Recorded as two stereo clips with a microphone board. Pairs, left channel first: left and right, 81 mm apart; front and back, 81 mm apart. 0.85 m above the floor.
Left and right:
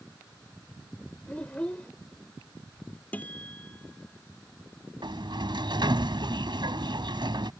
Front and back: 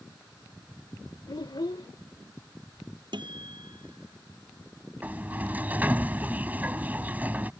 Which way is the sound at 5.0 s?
110° right.